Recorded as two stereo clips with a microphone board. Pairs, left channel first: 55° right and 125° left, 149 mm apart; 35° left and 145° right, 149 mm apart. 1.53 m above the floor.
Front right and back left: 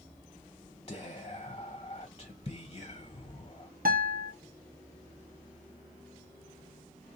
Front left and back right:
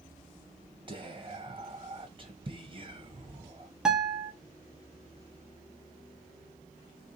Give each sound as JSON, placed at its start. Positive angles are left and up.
{"t": 0.9, "sound": "whispering", "azimuth_deg": -100, "distance_m": 0.6}
{"t": 3.9, "sound": "a guitar", "azimuth_deg": 130, "distance_m": 0.8}